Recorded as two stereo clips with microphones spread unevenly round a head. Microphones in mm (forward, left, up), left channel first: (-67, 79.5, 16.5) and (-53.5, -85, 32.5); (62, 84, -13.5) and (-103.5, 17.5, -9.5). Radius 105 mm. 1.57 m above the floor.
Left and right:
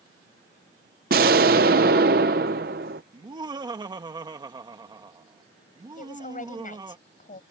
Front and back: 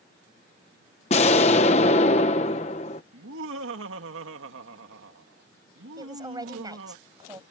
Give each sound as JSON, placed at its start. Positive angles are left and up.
{"t": 1.1, "sound": "an explosion", "azimuth_deg": -40}
{"t": 3.1, "sound": "laughter", "azimuth_deg": -150}
{"t": 6.0, "sound": "a woman speaking", "azimuth_deg": 135}